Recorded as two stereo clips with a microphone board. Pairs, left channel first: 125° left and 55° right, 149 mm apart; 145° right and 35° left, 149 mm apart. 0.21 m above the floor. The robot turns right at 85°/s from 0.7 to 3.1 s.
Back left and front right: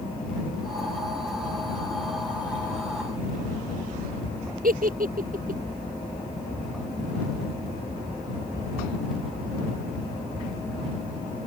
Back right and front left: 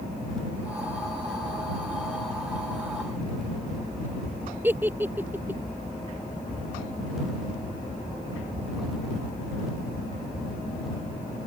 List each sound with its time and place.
4.6 s a giggle: 45° right